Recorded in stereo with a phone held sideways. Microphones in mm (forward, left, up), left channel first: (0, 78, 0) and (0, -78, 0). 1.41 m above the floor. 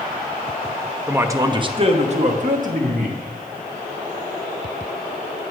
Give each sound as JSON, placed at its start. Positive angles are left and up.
{"t": 1.1, "sound": "a man speaking", "side_deg": -10, "distance_m": 0.8}